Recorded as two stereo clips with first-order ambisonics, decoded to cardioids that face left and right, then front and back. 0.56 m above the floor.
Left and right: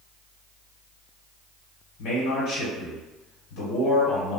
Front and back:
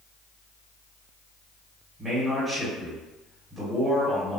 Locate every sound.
2.0 s a man speaking: 110° left, 1.2 m